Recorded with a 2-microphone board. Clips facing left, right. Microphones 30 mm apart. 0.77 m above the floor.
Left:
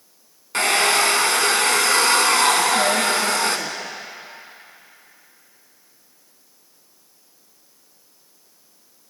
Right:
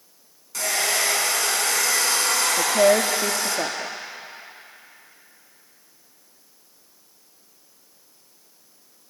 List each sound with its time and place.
0.5 s a hair dryer: 50° left (ahead or behind), 2 m
2.6 s a woman speaking: 60° right (ahead or behind), 1.1 m